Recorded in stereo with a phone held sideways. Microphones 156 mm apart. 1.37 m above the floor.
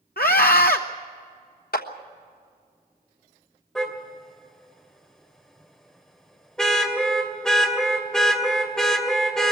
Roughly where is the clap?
Left.